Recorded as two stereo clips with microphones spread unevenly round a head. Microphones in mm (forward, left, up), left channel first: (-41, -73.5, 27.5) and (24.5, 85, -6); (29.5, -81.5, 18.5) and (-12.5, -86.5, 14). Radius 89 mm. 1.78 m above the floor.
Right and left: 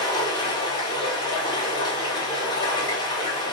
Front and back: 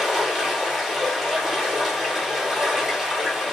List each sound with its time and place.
0.0 s running water: 80° right, 1.1 m